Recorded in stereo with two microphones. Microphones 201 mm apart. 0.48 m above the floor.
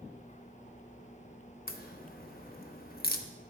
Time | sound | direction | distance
1.7 | a crack | 45° left (ahead or behind) | 0.5 m